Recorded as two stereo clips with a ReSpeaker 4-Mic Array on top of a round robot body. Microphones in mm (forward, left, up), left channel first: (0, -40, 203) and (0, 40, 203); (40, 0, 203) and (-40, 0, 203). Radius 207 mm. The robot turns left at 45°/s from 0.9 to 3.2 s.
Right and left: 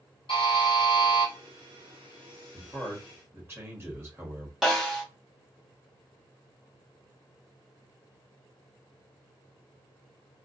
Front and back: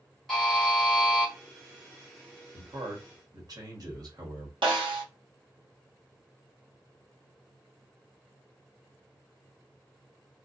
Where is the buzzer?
90° right, 0.6 m; by 1.3 s 110° right, 0.6 m.